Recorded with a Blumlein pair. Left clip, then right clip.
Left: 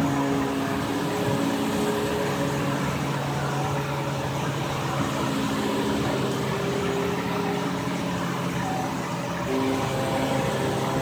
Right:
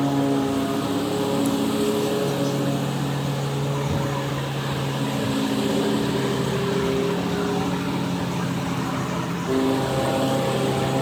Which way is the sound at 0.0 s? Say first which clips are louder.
Right 2 dB; 15° right.